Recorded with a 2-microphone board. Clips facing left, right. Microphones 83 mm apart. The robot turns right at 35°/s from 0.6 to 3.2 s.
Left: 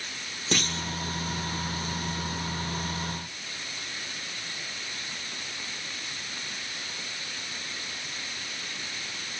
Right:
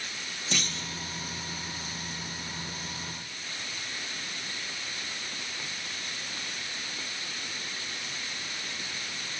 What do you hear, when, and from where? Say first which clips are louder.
0.5 s a clunk: left 6 dB; 50° left (ahead or behind), 0.9 m; by 0.9 s 55° left (ahead or behind), 0.9 m